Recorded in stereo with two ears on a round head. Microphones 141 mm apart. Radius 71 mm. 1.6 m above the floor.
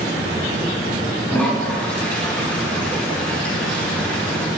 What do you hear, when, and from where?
1.3 s a toilet flushing: 10° left (ahead or behind), 4.5 m